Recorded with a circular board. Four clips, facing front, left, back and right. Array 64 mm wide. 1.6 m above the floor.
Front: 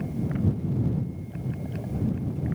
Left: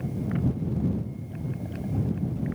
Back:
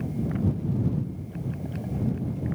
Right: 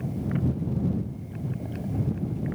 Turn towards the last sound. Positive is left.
No sound to turn to.